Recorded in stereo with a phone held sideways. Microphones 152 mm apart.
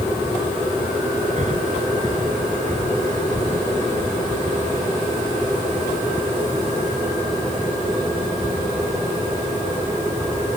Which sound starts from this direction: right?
Breathing, at 1.4 s.